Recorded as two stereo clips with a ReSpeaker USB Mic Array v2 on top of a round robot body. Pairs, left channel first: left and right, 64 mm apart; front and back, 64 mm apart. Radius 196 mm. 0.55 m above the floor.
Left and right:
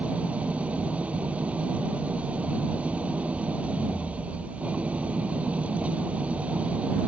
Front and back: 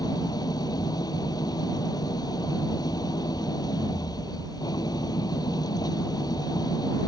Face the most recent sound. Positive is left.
turn(degrees=-15)